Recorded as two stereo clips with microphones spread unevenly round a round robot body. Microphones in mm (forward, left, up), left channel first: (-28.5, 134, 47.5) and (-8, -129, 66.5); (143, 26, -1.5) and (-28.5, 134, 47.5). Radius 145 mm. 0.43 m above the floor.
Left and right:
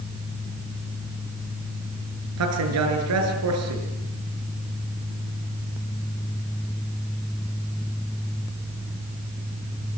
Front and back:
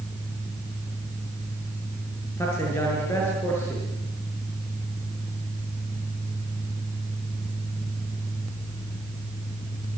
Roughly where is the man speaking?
Behind right.